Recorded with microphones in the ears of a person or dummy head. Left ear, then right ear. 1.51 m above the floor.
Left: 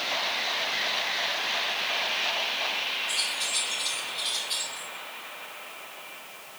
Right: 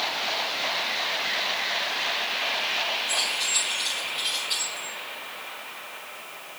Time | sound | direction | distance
3.1 | keys jangling | centre (ahead or behind) | 3 m